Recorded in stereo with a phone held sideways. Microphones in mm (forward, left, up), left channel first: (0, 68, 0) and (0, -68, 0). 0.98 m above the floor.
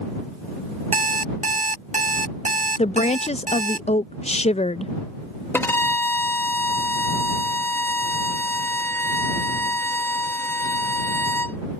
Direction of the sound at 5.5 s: 15° left (ahead or behind).